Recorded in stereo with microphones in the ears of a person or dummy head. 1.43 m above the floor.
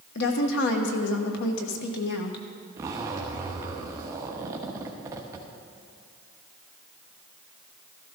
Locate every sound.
0.1 s a woman speaking: 65° left (ahead or behind), 1.2 m
2.8 s a zipper: 20° right (ahead or behind), 1.1 m